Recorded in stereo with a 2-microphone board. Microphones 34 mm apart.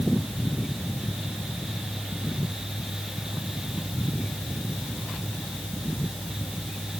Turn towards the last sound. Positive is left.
No sound to turn to.